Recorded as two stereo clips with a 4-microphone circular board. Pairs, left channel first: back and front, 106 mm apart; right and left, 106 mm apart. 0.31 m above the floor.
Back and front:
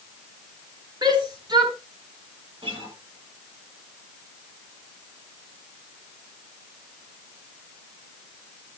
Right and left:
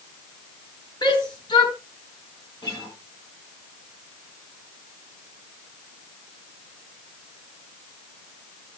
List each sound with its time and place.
1.0 s a shout: 45° right, 4.5 m
2.6 s a guitar: 40° right, 9 m